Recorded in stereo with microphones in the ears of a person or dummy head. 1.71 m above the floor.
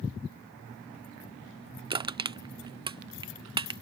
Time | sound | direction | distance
1.9 | crushing | 20° right (ahead or behind) | ?